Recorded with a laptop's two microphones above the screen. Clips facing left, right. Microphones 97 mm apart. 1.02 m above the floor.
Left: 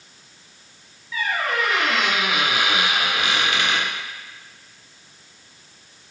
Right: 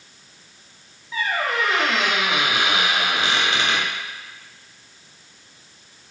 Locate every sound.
1.1 s a squeak: 30° right (ahead or behind), 0.6 m